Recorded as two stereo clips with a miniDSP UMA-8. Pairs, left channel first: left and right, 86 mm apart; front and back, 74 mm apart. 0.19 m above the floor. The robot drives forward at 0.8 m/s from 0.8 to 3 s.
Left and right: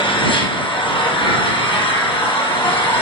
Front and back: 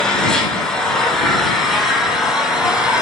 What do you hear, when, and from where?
0.0 s an engine running: 85° left, 5 m; by 3.0 s 105° left, 5 m